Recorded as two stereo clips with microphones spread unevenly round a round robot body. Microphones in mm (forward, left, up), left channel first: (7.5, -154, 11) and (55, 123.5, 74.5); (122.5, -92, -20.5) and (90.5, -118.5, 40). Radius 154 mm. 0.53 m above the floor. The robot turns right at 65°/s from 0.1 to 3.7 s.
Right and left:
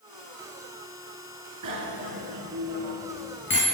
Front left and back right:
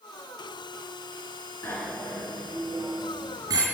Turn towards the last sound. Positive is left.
turn(degrees=-170)